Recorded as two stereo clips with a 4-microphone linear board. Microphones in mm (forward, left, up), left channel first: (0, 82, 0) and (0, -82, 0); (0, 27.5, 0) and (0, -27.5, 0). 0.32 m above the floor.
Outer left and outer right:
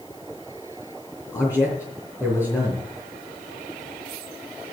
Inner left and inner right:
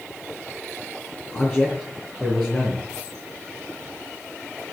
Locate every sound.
1.3 s a man speaking: 15° left (ahead or behind), 3.5 m